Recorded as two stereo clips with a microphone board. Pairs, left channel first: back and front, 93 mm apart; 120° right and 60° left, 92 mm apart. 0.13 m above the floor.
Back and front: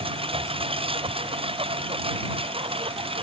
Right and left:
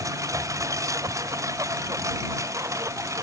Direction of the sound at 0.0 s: 5° left.